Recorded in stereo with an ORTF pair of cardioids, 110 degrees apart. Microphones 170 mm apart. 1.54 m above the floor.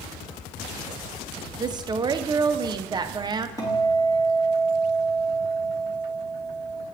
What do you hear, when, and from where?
1.6 s a woman speaking: 25° right, 0.7 m
3.6 s a guitar: 20° left, 2.5 m